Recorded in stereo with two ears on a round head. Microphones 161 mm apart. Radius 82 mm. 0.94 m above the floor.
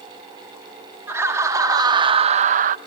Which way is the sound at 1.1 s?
15° right (ahead or behind).